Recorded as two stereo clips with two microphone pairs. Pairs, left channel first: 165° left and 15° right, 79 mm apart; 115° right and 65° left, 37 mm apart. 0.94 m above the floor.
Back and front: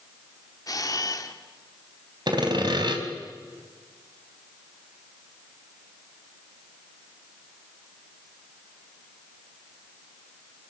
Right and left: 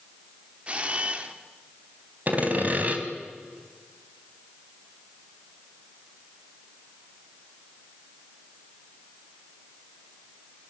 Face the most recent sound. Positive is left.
turn(degrees=15)